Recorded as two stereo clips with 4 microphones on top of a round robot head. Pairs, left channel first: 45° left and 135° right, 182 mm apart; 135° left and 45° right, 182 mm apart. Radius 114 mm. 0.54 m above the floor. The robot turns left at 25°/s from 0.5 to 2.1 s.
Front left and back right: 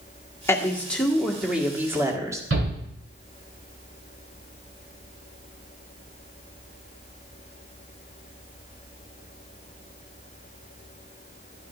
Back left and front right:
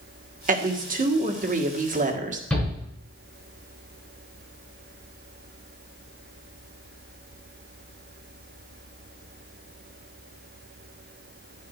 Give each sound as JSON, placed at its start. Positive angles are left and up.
{"t": 0.5, "sound": "a woman speaking", "azimuth_deg": -25, "distance_m": 1.7}
{"t": 2.5, "sound": "a shout", "azimuth_deg": -140, "distance_m": 6.5}